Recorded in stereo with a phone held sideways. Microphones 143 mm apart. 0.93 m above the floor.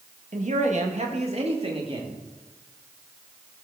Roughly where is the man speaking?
Right.